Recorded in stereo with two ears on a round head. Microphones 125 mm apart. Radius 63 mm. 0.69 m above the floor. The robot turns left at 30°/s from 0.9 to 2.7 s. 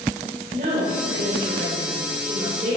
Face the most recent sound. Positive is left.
turn(degrees=-120)